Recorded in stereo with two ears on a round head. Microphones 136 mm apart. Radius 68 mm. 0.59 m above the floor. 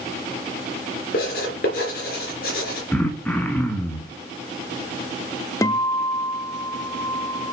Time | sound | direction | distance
1.1 | writing | 65° left (ahead or behind) | 3.5 m
2.9 | throat clearing | 10° left (ahead or behind) | 1.3 m
5.6 | a guitar | 20° left (ahead or behind) | 0.6 m